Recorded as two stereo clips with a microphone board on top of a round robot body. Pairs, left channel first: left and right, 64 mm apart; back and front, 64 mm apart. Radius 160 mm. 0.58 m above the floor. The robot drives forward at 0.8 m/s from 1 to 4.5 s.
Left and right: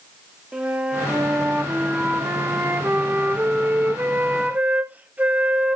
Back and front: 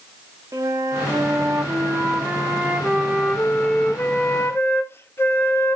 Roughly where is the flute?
Ahead.